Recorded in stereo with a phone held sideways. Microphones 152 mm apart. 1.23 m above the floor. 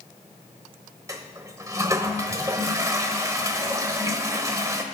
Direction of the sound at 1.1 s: 20° right (ahead or behind).